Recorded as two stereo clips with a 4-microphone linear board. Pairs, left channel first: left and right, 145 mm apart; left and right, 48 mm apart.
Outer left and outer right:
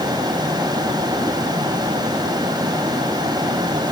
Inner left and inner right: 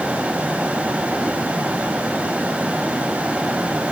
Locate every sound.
Only background noise.